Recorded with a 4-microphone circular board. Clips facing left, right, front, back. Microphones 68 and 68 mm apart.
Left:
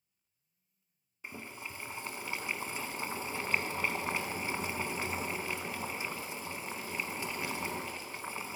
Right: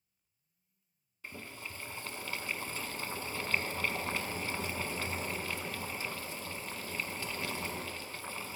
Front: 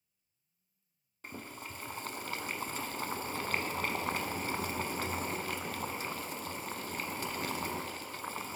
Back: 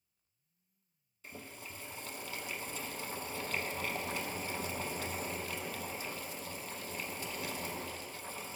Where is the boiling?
20° left, 0.6 m.